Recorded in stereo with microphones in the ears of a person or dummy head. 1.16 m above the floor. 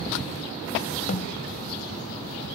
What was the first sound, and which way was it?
A snare drum, 40° left (ahead or behind).